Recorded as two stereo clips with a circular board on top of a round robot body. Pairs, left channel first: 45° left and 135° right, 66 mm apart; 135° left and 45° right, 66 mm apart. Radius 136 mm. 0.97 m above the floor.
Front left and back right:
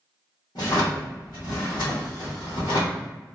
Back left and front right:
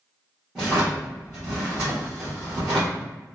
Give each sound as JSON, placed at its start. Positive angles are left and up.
{"t": 0.6, "sound": "a drawer", "azimuth_deg": 35, "distance_m": 1.1}